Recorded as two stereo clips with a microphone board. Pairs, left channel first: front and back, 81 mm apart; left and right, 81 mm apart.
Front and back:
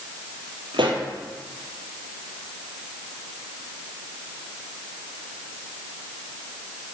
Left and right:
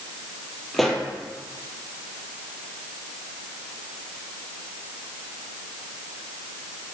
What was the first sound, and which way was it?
A pop, 175° left.